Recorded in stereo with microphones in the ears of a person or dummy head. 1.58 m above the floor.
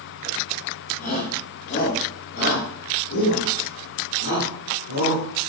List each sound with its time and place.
1.0 s a shout: 50° left (ahead or behind), 2.5 m; by 5.2 s 85° left, 4.5 m